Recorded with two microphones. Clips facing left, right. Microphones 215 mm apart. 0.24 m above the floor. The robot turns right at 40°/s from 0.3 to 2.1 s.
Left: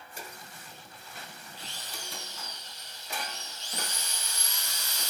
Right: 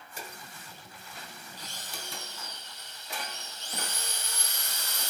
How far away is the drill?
About 2.5 m.